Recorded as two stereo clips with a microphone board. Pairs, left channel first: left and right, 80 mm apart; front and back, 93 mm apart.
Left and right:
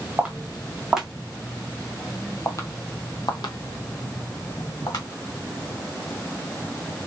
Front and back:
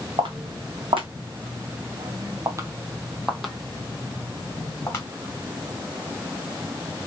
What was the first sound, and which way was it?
Footsteps, 165° right.